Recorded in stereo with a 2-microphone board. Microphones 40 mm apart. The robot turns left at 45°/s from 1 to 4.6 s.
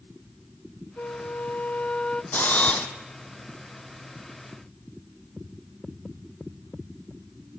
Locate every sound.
1.0 s a flute: 85° left, 0.5 m; by 2.2 s 30° left, 0.5 m
2.3 s a camera shutter: 50° left (ahead or behind), 1.7 m; by 2.9 s 25° left (ahead or behind), 1.7 m